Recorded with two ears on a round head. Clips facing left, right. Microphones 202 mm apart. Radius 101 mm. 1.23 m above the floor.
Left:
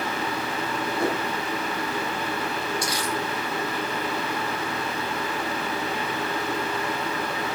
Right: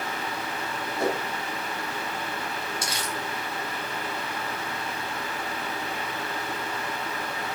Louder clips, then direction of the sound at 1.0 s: Even; 25° right (ahead or behind).